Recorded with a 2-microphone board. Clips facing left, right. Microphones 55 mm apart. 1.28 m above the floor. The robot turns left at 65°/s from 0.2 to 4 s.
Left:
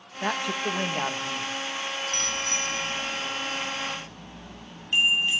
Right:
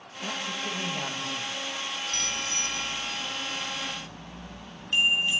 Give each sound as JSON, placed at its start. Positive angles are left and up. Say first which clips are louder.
{"t": 0.2, "sound": "a man speaking", "louder": "left 6 dB", "azimuth_deg": 85, "distance_m": 2.0}
{"t": 2.1, "sound": "a bicycle bell", "louder": "left 3 dB", "azimuth_deg": 140, "distance_m": 6.5}